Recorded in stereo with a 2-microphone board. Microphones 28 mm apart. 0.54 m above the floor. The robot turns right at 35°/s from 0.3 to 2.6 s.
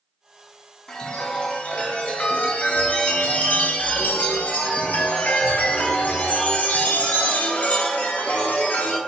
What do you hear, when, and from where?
0.9 s a chime: 20° left, 0.7 m; by 9.0 s 80° left, 0.7 m